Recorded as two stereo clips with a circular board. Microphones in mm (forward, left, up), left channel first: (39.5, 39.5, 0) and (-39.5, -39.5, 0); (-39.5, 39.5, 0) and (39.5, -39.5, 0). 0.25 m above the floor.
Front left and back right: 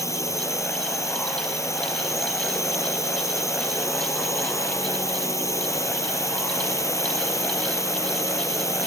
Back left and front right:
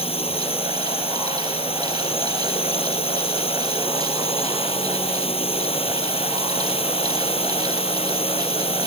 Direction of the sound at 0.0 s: 105° left.